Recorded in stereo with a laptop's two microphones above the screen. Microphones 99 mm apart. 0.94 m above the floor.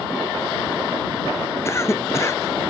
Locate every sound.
1.6 s a cough: 30° left (ahead or behind)